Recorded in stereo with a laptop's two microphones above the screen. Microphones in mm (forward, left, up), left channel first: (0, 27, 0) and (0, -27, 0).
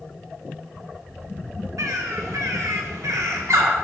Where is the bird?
80° right, 1.6 m.